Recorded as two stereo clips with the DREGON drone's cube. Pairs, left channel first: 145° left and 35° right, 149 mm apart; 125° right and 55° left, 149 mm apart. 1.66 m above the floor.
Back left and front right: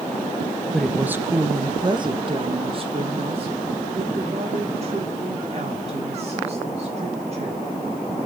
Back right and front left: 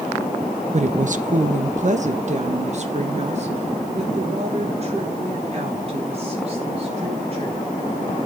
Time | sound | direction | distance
0.7 | a woman speaking | 65° left | 0.7 m